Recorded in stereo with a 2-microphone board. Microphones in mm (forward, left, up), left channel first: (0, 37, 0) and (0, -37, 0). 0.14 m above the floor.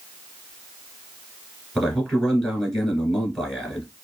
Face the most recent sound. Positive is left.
turn(degrees=5)  # may be behind; listen again after turning